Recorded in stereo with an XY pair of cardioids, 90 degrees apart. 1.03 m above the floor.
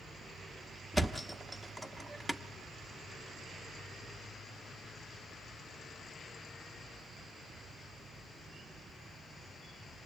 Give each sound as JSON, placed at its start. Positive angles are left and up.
{"t": 0.9, "sound": "a thud", "azimuth_deg": 10, "distance_m": 1.0}